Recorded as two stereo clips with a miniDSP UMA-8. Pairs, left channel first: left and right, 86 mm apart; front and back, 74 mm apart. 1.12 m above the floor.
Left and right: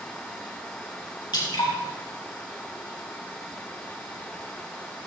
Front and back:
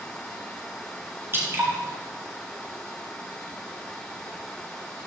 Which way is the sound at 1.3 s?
125° left.